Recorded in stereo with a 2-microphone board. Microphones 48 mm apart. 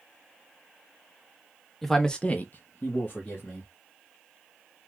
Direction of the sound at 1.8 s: 5° left (ahead or behind).